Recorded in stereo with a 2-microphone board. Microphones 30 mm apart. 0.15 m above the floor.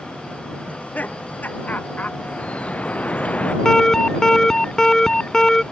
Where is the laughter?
70° left (ahead or behind); by 2.1 s 65° left (ahead or behind).